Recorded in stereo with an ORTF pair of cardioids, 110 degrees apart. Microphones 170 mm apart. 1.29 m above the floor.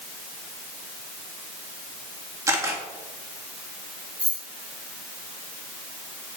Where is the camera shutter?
20° right, 2 m.